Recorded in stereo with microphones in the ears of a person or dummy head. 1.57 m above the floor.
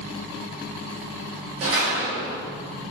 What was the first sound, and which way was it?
A door slam, 30° right (ahead or behind).